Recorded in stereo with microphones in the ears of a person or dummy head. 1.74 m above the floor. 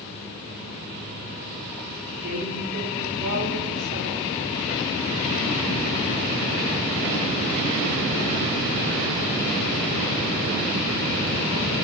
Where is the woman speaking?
85° right, 5.5 m.